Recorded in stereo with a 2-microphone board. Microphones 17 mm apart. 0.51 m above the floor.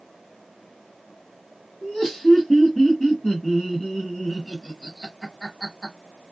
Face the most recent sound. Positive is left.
turn(degrees=15)  # may be behind; listen again after turning